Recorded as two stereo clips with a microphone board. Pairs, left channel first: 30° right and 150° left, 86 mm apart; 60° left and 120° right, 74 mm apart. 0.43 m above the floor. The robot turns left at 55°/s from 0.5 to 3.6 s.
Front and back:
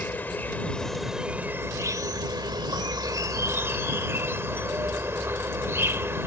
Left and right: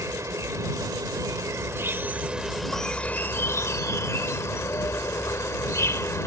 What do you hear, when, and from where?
0.0 s an insect: 90° right; by 6.3 s 95° left